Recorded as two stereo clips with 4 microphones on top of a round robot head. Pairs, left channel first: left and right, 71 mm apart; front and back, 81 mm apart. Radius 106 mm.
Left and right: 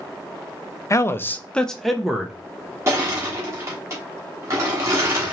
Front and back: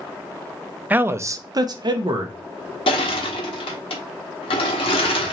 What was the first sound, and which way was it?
A man speaking, 115° left.